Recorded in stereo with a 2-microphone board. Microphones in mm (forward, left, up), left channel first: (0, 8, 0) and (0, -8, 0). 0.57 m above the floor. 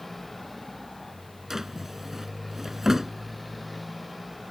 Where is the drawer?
25° right (ahead or behind).